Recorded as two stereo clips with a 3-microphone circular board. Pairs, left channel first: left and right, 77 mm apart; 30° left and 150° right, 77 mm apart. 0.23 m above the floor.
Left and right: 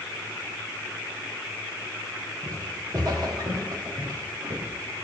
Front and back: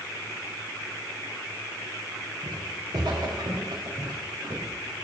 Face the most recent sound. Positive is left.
turn(degrees=-115)